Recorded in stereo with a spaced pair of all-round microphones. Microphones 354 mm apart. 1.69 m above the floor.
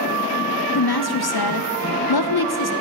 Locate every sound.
0.8 s a woman speaking: 85° left, 0.7 m